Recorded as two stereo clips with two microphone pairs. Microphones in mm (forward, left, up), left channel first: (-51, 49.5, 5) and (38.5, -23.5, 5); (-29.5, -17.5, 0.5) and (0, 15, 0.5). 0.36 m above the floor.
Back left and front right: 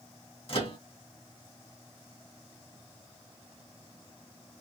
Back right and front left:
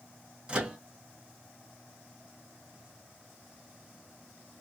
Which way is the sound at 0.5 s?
110° left.